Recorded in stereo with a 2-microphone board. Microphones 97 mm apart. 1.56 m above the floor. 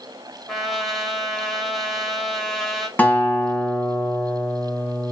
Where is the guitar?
20° left (ahead or behind), 3.5 m.